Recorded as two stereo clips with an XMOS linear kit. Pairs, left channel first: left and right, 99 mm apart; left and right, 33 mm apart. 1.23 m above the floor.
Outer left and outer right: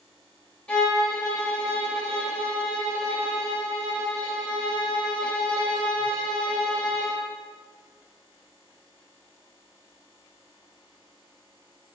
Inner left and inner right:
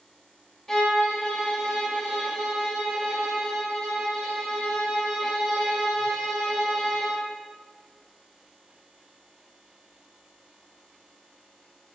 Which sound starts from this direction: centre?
A violin, at 0.7 s.